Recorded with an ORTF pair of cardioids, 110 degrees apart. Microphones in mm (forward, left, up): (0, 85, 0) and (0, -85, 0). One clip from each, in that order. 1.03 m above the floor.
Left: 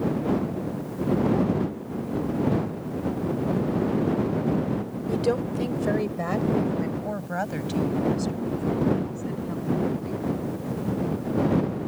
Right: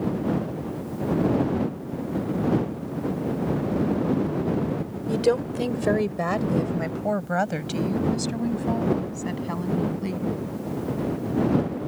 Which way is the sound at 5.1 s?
25° right.